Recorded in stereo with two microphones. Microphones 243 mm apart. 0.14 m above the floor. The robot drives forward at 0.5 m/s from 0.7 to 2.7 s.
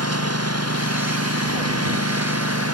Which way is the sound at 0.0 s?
85° right.